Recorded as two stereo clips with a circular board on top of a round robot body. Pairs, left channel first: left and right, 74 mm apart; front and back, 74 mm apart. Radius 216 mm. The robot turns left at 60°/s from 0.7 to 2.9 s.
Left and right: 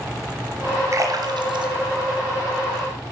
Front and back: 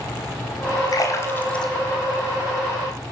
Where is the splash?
40° right, 1.7 m; by 2.9 s 155° right, 1.7 m.